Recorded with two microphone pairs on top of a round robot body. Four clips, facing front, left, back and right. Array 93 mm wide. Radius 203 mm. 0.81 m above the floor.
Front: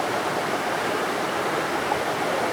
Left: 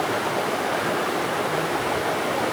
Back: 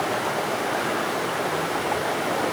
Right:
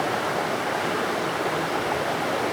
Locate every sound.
Only background noise.